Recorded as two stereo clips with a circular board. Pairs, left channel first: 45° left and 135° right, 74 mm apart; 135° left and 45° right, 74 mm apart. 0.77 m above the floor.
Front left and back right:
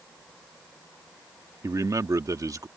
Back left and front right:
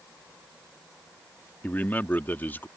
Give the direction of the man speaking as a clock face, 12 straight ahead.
5 o'clock.